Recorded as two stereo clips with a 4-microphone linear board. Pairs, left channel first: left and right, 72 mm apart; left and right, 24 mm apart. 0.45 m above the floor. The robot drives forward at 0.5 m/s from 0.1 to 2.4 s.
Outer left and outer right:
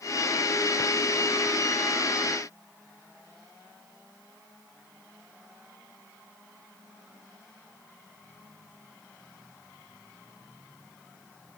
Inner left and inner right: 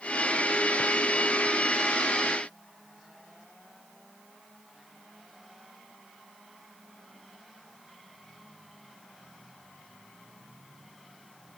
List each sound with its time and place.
Only background noise.